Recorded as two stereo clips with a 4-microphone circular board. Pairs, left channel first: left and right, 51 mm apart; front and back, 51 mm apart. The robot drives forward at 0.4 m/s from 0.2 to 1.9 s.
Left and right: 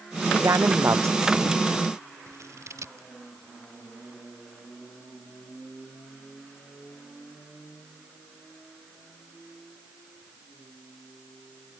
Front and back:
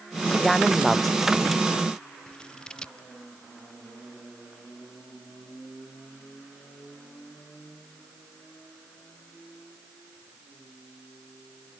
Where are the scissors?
75° right.